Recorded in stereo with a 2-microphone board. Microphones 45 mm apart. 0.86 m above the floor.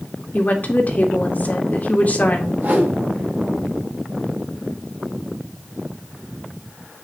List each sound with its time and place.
0.3 s a woman speaking: 40° left (ahead or behind), 2 m
2.6 s a whoosh: 40° right (ahead or behind), 5.5 m